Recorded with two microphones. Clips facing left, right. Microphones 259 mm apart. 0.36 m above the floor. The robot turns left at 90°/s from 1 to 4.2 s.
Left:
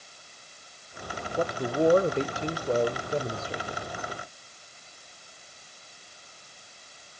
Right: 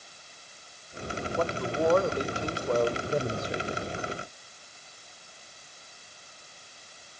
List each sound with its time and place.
1.4 s a man speaking: 15° left (ahead or behind), 0.9 m; by 3.8 s 25° right (ahead or behind), 0.9 m